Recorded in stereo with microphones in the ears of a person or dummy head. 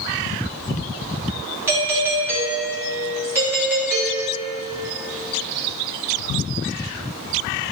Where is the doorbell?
10° right (ahead or behind), 1.3 m.